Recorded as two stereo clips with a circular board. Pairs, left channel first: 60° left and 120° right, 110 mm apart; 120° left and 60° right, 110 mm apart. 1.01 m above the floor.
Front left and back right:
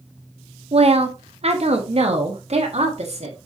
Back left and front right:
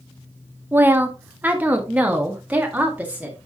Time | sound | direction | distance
0.7 | a woman speaking | 130° right | 0.8 m